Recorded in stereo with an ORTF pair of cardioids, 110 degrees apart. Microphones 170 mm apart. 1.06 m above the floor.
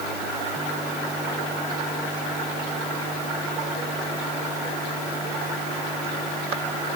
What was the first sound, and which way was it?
Only background noise.